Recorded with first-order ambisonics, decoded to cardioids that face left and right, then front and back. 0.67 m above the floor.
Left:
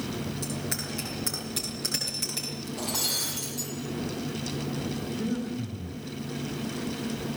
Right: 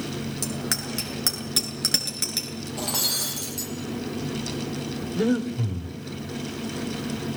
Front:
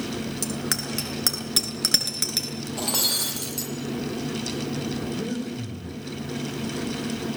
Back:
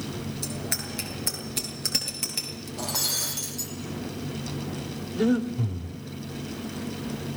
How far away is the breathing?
About 2.5 m.